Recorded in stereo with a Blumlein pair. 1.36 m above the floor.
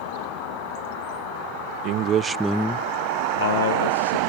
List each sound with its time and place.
1.8 s a man speaking: 40° right, 0.8 m; by 4.2 s 75° left, 1.3 m